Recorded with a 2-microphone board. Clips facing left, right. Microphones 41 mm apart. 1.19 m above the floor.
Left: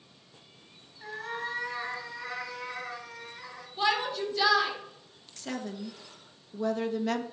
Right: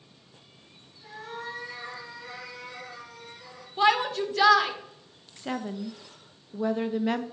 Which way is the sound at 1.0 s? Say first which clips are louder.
Left 3 dB; 50° left (ahead or behind).